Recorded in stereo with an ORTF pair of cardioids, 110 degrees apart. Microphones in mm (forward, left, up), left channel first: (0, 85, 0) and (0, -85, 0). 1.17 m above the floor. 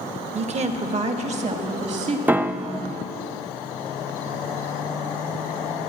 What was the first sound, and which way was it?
A woman speaking, 40° right.